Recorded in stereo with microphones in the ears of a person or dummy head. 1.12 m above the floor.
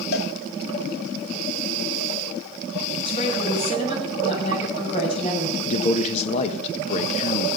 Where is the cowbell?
65° left (ahead or behind), 2.0 m.